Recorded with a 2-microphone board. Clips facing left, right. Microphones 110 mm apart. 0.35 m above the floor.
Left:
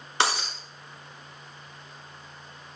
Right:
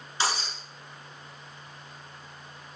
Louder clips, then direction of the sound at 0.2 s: Left 3 dB; 70° left (ahead or behind).